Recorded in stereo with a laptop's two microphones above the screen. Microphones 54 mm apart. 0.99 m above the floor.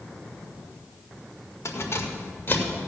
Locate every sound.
1.6 s keys jangling: 60° left (ahead or behind), 1.7 m; by 2.9 s 30° left (ahead or behind), 2.5 m